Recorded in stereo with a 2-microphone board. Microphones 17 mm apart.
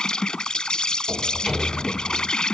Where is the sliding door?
25° right (ahead or behind).